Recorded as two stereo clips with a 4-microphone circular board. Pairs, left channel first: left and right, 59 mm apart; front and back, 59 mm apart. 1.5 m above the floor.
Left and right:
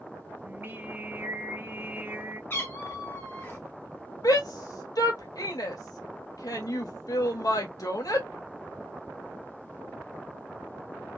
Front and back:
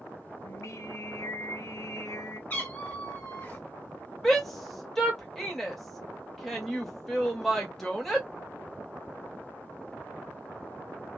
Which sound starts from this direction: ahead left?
A cat meowing, at 2.5 s.